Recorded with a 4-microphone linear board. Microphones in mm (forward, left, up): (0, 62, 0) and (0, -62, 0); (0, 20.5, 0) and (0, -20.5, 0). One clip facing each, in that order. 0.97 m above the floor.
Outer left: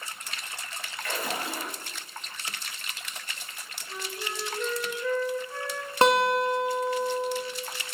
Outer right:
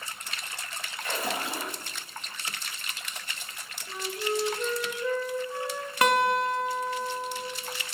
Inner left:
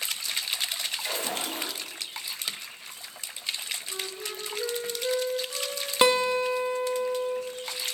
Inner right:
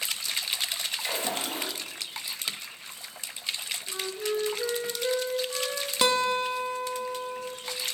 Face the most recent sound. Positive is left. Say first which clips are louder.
# outer left 2 dB, inner left 3 dB
turn(degrees=30)  # may be behind; listen again after turning